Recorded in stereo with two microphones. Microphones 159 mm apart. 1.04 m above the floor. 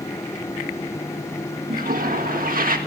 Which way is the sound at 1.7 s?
65° right (ahead or behind).